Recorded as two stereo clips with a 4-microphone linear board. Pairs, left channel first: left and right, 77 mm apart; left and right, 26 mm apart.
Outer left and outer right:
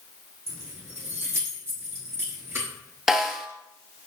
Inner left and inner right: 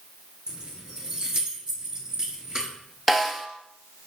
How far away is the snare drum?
About 0.8 m.